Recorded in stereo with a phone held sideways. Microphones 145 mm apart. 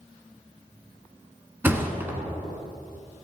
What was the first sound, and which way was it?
A thud, 15° right (ahead or behind).